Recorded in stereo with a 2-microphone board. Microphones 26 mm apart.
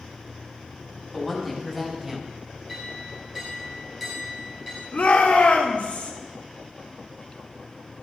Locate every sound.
1.1 s a woman speaking: 10° left (ahead or behind), 3 m; by 2.3 s 15° right (ahead or behind), 2 m
2.7 s a clink: 5° right (ahead or behind), 5.5 m
4.9 s a shout: 75° left (ahead or behind), 1.9 m